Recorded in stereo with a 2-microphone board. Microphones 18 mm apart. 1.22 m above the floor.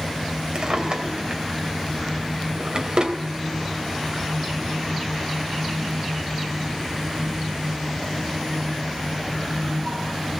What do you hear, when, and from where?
0.6 s a drawer: 50° right (ahead or behind), 3 m